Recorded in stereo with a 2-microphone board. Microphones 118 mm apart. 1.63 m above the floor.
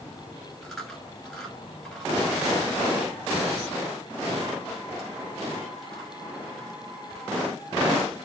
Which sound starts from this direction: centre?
Chewing, at 0.6 s.